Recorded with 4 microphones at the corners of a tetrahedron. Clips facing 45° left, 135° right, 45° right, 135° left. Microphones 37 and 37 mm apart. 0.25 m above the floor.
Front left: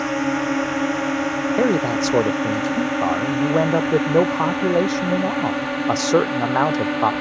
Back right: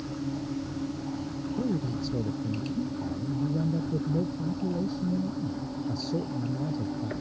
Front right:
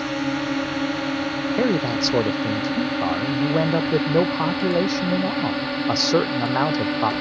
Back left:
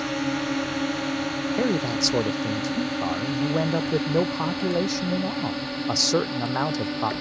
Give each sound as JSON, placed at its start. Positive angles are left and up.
{"t": 0.0, "sound": "a drone", "azimuth_deg": 40}
{"t": 1.6, "sound": "a man speaking", "azimuth_deg": 30}